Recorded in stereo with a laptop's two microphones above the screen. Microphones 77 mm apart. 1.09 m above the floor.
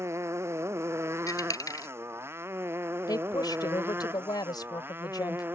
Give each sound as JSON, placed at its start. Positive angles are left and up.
{"t": 0.0, "sound": "a motorcycle", "side_deg": -35}
{"t": 1.3, "sound": "a dropped coin", "side_deg": 50}
{"t": 3.1, "sound": "a woman speaking", "side_deg": 60}